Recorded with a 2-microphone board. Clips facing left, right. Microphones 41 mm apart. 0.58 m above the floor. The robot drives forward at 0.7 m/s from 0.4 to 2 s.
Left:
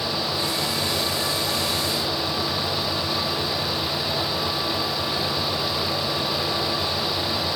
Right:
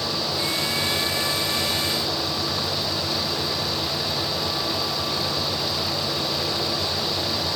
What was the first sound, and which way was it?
Only background noise.